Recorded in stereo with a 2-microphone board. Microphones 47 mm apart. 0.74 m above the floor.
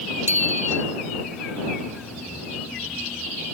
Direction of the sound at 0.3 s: 70° right (ahead or behind).